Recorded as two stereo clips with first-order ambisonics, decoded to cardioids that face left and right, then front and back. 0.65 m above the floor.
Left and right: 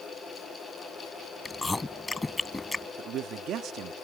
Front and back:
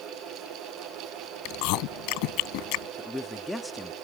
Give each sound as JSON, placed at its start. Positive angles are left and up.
{"t": 1.4, "sound": "chewing", "azimuth_deg": 10}
{"t": 3.0, "sound": "a man speaking", "azimuth_deg": -80}